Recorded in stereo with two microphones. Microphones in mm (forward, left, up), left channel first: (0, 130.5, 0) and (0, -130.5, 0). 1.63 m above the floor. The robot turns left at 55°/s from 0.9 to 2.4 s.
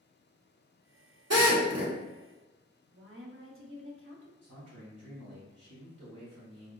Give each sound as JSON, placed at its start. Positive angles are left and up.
{"t": 1.3, "sound": "a drill", "side_deg": -70, "distance_m": 0.9}
{"t": 2.9, "sound": "a woman speaking", "side_deg": -50, "distance_m": 0.7}
{"t": 4.4, "sound": "a man speaking", "side_deg": -70, "distance_m": 1.7}